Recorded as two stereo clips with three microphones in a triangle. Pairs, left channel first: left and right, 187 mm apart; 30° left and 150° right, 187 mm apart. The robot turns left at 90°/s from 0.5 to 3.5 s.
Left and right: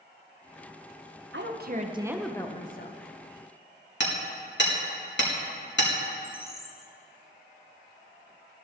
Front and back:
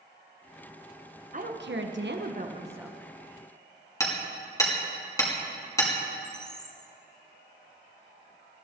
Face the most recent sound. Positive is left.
turn(degrees=115)